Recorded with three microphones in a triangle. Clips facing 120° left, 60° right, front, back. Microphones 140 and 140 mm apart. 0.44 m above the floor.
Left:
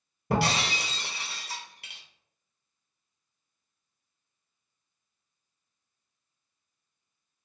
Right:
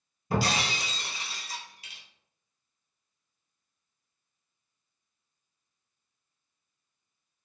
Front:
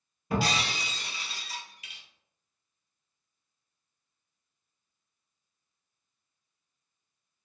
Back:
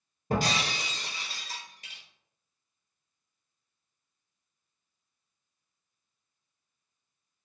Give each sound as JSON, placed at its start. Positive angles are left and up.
{"t": 0.3, "sound": "breaking glass", "azimuth_deg": 140, "distance_m": 1.0}